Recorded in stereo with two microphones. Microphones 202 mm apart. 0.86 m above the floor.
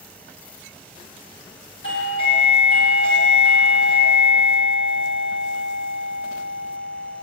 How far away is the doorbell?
About 3 m.